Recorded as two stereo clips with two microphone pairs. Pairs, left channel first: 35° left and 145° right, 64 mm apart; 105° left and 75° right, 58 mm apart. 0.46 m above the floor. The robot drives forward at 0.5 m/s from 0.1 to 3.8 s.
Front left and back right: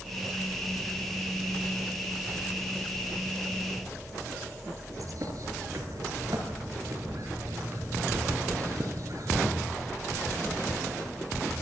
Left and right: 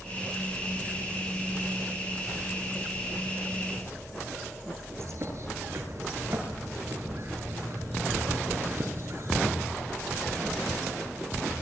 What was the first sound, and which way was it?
A bird, 115° right.